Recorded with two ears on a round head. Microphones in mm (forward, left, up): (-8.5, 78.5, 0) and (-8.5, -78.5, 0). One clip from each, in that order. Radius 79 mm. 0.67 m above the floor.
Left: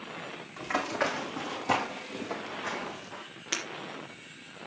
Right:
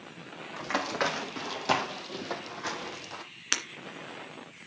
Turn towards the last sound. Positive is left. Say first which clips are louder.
# right 3 dB
turn(degrees=-60)  # may be behind; listen again after turning